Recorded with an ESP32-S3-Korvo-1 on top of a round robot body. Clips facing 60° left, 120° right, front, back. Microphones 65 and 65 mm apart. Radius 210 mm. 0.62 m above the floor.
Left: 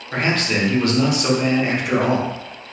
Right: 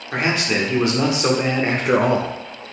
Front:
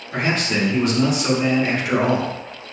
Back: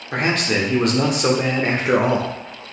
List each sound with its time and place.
0.1 s a man speaking: 160° left, 1.3 m; by 2.3 s 110° right, 0.8 m